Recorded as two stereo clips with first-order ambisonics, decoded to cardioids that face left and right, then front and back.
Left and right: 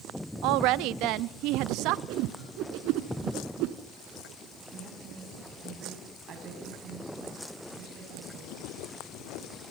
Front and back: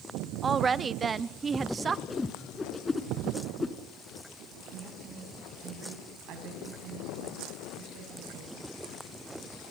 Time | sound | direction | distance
0.4 | a woman speaking | 110° right | 0.6 m
2.1 | a whoosh | 75° right | 1.5 m
4.7 | a woman speaking | 140° right | 8 m